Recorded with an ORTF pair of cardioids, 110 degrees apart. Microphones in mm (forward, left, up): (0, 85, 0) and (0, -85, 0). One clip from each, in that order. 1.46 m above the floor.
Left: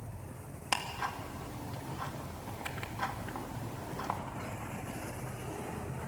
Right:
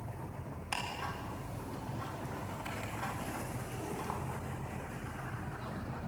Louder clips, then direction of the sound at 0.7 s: Left 4 dB; 40° left.